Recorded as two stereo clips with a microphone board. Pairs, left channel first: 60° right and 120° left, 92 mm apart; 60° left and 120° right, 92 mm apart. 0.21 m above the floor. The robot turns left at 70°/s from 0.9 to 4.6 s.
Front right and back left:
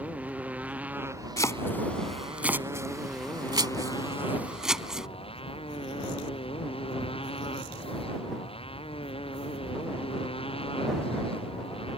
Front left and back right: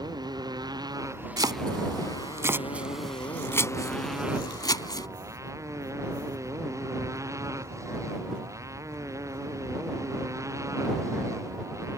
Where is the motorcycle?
165° right; by 12.0 s 65° right.